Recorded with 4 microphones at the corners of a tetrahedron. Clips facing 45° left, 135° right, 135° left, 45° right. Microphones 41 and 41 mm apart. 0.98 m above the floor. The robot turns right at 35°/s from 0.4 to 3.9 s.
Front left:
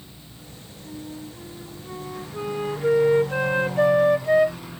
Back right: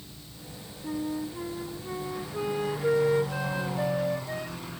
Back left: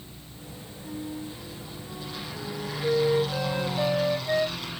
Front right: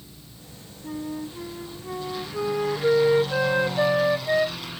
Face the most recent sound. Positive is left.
turn(degrees=10)